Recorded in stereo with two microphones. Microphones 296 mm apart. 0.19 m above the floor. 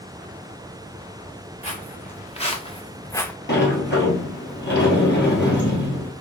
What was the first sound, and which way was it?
Footsteps, 20° left (ahead or behind).